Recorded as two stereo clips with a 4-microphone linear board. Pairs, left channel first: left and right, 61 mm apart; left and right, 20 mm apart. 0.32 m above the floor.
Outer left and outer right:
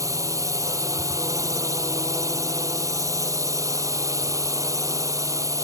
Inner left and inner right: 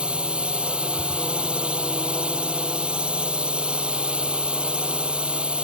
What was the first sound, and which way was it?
A drone, 60° right (ahead or behind).